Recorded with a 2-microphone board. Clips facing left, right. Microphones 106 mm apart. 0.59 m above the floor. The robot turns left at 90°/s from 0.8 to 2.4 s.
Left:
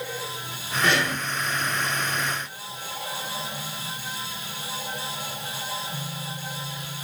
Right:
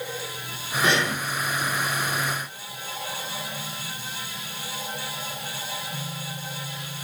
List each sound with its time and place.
0.8 s breathing: 20° right (ahead or behind), 0.8 m; by 1.2 s 15° right (ahead or behind), 0.8 m